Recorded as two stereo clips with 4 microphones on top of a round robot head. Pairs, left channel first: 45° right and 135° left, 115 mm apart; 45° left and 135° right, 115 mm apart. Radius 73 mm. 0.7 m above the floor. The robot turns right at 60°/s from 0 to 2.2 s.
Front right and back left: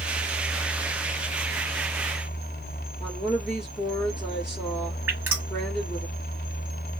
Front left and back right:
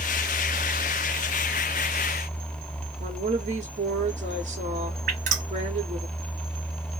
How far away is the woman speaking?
About 1.6 m.